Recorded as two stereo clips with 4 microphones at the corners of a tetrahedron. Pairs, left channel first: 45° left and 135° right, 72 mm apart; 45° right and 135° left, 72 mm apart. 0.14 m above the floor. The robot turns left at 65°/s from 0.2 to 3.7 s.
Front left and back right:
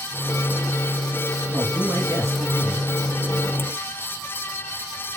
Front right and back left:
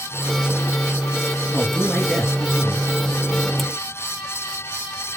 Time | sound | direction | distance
1.5 | a woman speaking | 110° right | 2 m